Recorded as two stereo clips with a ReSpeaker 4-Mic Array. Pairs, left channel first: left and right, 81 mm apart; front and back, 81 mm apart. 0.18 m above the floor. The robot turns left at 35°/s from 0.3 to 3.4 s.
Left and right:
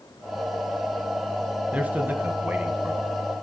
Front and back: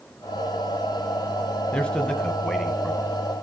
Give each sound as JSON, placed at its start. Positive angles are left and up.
{"t": 1.7, "sound": "a man speaking", "azimuth_deg": -55, "distance_m": 1.1}